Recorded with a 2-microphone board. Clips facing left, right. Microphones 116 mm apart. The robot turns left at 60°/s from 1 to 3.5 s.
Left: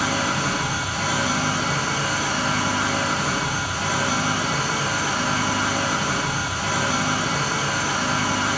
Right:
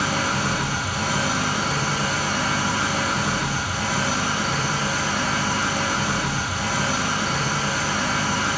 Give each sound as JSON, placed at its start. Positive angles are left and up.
{"t": 0.0, "sound": "an engine running", "azimuth_deg": -50, "distance_m": 1.9}